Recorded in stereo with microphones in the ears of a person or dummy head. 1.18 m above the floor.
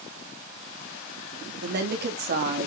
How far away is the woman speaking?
About 3 m.